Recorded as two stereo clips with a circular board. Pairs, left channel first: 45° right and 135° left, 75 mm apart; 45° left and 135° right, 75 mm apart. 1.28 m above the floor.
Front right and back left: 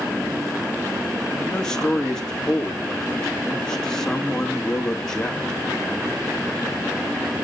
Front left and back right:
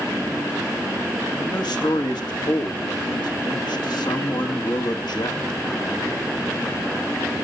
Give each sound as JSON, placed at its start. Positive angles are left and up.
{"t": 1.4, "sound": "a man speaking", "azimuth_deg": 35, "distance_m": 2.0}